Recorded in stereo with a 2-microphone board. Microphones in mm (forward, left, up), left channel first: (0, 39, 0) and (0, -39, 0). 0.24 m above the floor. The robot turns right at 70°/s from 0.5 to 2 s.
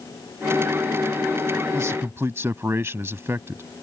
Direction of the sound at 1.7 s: 40° right (ahead or behind).